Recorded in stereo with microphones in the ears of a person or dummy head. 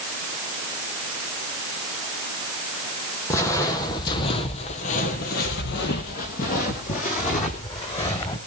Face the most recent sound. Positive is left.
turn(degrees=30)  # may be behind; listen again after turning